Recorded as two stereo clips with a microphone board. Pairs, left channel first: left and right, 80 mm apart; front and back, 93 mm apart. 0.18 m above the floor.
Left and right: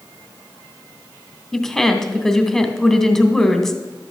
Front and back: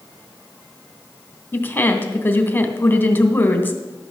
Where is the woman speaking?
15° left, 1.3 m.